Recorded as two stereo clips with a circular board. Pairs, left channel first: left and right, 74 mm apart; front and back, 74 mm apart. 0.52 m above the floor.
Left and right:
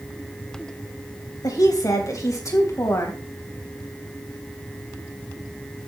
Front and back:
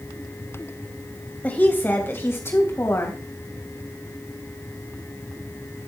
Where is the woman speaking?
65° left, 3 m; by 3.2 s 45° left, 3 m.